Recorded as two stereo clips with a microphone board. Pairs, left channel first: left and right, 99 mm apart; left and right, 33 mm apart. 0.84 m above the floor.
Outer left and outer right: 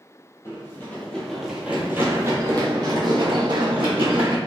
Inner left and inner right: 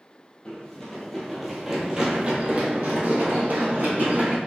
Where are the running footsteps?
25° left (ahead or behind), 1.0 m; by 4.4 s 65° right (ahead or behind), 1.8 m.